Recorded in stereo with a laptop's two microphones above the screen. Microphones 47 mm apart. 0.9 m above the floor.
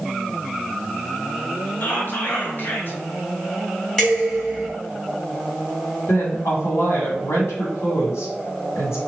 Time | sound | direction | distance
1.8 | whispering | 45° left (ahead or behind) | 1.3 m
4.0 | dishes clattering | 15° left (ahead or behind) | 1.9 m
6.1 | a woman speaking | 75° left (ahead or behind) | 1.7 m